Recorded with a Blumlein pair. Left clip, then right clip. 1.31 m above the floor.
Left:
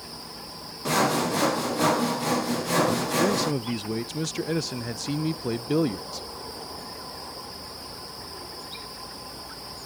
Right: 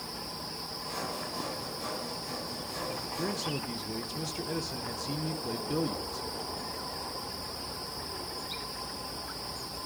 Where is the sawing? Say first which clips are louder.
Left 15 dB; 50° left, 0.6 m.